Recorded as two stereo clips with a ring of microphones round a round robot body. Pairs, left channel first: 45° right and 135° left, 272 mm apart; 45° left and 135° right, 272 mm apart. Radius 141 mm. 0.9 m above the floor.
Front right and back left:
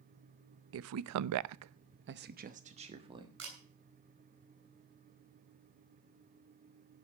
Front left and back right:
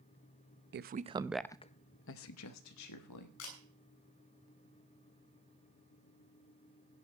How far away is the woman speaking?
About 0.8 m.